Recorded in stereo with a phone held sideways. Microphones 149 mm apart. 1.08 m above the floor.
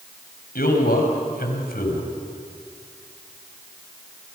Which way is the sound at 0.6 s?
85° left.